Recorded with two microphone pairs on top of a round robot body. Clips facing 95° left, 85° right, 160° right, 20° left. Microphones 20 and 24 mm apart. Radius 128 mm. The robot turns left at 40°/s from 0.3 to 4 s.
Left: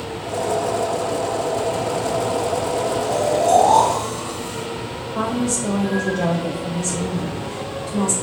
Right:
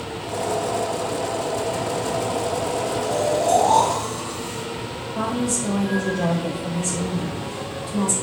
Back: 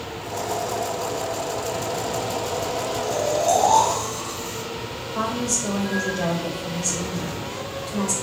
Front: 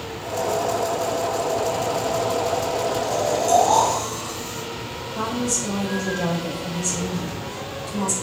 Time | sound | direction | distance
3.0 | snoring | 160° left | 1.5 m
5.2 | a woman speaking | 150° left | 1.3 m